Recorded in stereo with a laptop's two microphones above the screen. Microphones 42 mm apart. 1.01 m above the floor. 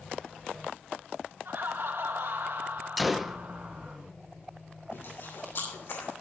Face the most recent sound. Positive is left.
turn(degrees=65)  # may be behind; listen again after turning